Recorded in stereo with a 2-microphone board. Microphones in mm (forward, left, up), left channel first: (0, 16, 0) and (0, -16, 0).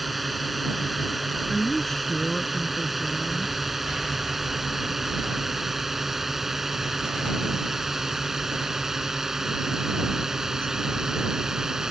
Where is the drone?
Centre (ahead or behind); by 11.9 s 15° right (ahead or behind).